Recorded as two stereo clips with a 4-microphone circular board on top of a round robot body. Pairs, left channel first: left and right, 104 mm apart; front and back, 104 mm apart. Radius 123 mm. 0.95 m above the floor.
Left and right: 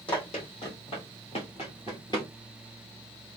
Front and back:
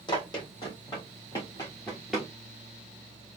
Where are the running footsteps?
50° left, 2.5 m; by 2.3 s 135° left, 0.9 m.